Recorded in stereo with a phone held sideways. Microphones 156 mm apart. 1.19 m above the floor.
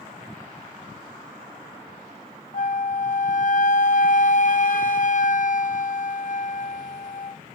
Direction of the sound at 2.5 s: 55° left (ahead or behind).